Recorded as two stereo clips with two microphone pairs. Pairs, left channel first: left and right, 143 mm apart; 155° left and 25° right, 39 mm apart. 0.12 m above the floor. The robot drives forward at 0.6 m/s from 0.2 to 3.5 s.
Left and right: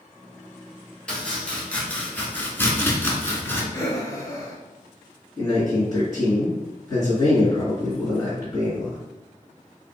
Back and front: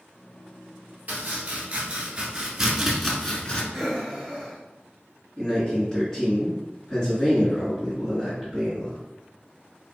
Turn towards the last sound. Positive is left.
turn(degrees=105)